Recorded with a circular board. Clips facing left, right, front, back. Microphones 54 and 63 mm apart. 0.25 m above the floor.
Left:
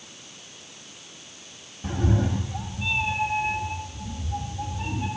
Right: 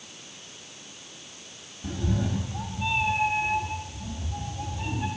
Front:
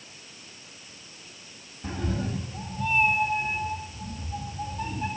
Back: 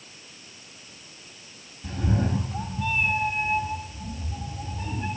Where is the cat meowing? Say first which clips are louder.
Left 4 dB, back 4 dB; 50° left, 0.6 m; by 5.1 s 170° right, 4.5 m.